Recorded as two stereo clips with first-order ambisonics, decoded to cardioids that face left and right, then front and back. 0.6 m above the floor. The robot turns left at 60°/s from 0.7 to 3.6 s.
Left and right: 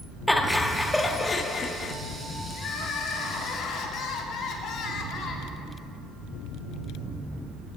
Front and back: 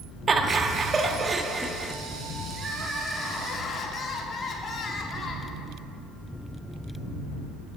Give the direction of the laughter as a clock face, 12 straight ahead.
6 o'clock.